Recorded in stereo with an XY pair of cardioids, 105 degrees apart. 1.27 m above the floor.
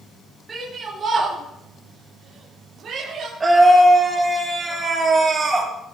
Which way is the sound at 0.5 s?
35° right.